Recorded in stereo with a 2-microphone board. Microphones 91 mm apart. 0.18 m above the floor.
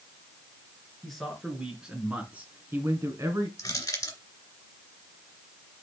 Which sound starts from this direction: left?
Crushing, at 3.6 s.